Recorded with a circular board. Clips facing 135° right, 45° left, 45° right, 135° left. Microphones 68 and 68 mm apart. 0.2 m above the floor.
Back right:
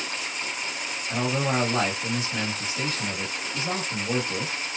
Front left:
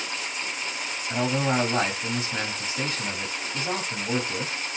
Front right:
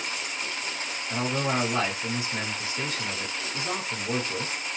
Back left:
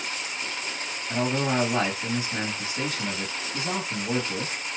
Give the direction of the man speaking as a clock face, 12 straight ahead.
9 o'clock.